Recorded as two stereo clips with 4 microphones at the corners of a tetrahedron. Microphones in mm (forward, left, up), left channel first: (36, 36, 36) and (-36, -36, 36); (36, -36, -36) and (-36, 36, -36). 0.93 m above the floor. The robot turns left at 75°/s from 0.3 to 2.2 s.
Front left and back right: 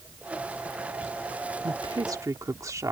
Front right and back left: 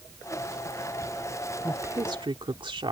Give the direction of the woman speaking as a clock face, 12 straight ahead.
5 o'clock.